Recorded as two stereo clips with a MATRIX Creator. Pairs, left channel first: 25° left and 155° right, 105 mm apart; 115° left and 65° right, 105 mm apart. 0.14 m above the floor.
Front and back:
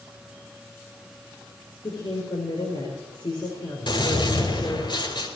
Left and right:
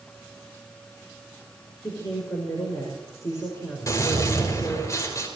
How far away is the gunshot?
About 4.5 m.